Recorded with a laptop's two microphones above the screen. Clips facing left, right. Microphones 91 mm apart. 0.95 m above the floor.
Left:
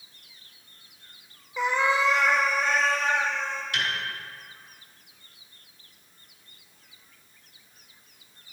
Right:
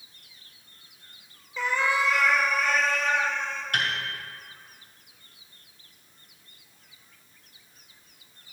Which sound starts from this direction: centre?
A cat meowing, at 1.6 s.